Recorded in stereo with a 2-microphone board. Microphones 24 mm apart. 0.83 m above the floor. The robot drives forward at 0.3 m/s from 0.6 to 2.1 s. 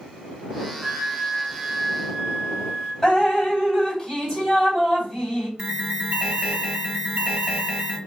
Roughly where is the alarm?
Right.